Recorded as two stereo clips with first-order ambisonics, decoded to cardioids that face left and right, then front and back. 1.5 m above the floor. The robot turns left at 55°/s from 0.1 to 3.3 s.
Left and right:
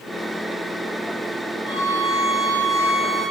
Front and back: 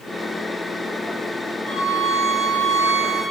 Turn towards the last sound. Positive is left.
turn(degrees=-175)